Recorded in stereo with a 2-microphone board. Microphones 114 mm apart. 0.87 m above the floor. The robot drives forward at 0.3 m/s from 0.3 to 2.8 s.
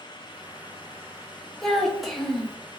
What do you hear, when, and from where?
1.6 s a child speaking: centre (ahead or behind), 0.6 m